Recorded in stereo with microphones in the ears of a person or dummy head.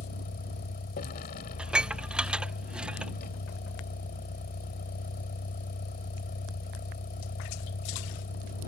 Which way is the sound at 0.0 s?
45° left (ahead or behind).